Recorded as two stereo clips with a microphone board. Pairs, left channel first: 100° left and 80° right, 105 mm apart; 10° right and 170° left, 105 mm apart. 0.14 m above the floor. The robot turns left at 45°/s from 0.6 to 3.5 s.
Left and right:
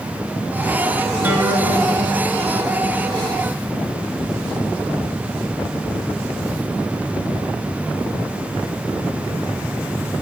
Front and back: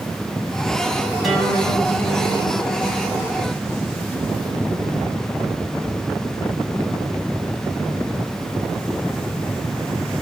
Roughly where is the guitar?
Right.